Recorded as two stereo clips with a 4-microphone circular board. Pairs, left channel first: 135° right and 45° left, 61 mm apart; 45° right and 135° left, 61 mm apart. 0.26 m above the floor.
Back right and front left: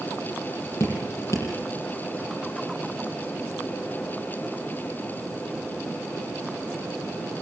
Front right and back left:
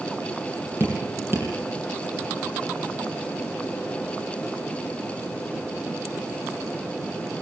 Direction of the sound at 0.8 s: 175° right.